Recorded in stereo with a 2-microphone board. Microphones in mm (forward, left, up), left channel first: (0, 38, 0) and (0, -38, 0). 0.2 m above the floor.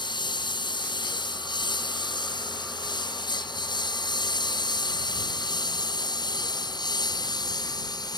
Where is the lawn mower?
85° left; by 8.2 s 65° left (ahead or behind).